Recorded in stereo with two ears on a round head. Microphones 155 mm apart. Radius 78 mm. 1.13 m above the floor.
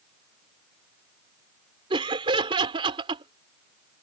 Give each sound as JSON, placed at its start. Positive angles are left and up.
{"t": 1.9, "sound": "laughter", "side_deg": -30}